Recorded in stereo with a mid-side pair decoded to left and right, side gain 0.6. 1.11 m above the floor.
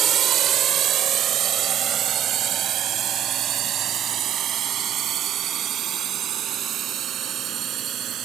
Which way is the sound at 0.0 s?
50° right.